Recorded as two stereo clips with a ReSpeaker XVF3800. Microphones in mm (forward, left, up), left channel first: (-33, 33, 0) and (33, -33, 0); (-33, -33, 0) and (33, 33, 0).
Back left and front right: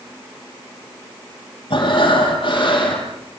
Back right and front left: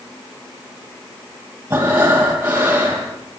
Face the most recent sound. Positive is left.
turn(degrees=115)